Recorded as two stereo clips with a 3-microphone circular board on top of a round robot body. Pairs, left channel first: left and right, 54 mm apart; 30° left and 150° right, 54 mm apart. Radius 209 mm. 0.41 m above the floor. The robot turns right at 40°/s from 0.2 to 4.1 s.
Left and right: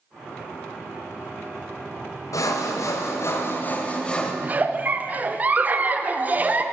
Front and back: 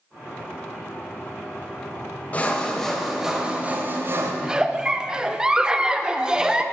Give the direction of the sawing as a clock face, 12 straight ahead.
9 o'clock.